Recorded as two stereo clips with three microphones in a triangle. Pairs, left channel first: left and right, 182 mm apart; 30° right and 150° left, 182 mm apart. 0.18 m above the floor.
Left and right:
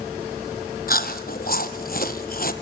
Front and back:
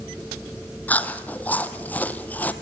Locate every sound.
0.9 s chewing: 50° left, 1.0 m